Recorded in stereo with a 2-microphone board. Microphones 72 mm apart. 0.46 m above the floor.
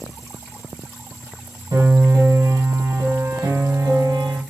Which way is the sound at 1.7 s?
80° right.